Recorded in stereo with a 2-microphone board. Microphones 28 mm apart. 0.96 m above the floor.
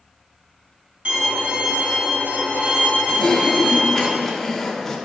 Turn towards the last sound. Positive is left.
turn(degrees=15)  # may be behind; listen again after turning